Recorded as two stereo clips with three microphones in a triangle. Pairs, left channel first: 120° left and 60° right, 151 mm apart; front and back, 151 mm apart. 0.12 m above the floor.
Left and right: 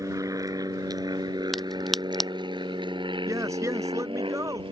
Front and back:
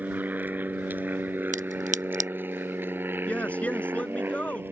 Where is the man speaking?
65° right.